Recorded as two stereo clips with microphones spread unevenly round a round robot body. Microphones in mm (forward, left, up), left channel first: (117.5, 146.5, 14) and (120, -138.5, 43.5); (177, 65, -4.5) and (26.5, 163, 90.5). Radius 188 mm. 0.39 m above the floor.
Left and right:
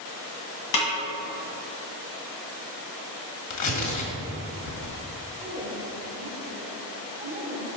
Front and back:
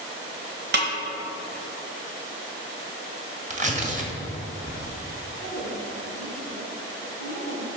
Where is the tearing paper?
85° left, 1.6 m.